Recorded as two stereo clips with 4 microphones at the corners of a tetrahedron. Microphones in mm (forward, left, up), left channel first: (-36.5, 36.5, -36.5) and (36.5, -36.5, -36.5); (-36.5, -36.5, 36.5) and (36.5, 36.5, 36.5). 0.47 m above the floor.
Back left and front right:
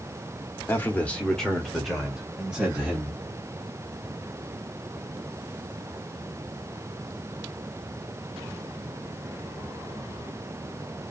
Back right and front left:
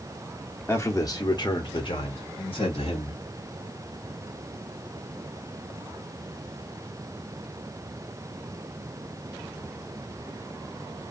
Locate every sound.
0.7 s a man speaking: straight behind, 0.9 m; by 3.2 s 120° right, 1.7 m